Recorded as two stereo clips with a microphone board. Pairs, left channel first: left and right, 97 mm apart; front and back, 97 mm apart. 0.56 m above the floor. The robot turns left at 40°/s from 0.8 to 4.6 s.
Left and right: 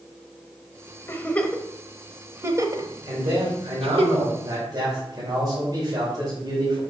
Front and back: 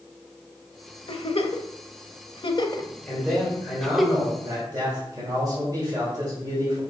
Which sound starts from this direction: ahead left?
A giggle, at 1.1 s.